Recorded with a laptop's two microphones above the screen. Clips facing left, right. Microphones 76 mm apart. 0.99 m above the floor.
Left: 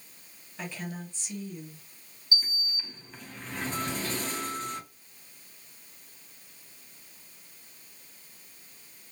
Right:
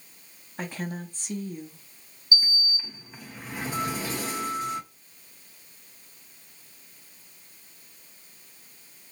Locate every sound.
0.6 s a woman speaking: 45° right (ahead or behind), 0.7 m
2.3 s a sliding door: 10° right (ahead or behind), 0.5 m